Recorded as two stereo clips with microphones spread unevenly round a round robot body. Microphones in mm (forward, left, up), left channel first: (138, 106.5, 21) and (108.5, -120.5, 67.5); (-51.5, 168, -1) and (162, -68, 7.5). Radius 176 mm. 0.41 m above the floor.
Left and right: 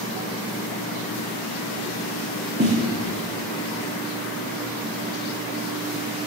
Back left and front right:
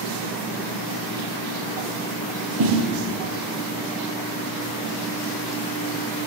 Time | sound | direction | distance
2.6 | a snare drum | 50° right | 7.5 m